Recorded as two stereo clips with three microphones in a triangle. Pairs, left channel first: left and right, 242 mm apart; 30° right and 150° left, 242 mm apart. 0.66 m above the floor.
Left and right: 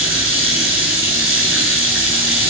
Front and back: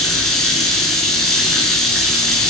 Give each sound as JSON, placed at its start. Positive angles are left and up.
{"t": 0.0, "sound": "running water", "azimuth_deg": 60, "distance_m": 5.0}